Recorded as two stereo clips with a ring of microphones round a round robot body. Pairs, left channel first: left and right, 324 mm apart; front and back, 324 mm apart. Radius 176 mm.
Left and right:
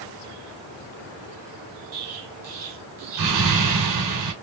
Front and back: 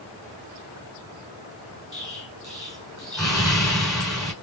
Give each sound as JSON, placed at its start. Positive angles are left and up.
{"t": 1.9, "sound": "an explosion", "azimuth_deg": -90, "distance_m": 2.5}